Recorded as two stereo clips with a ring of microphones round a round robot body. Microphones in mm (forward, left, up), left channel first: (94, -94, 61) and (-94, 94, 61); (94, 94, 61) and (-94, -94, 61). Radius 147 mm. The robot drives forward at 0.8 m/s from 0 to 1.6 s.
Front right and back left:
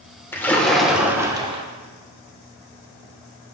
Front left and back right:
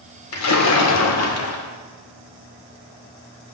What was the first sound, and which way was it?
A splash, 35° left.